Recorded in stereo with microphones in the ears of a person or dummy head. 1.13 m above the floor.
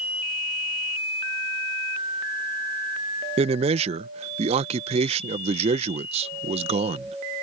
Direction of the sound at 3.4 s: 30° right (ahead or behind).